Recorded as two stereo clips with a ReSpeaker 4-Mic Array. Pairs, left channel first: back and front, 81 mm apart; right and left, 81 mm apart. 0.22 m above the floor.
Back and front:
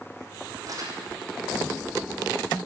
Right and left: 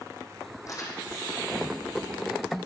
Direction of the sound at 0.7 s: 45° right.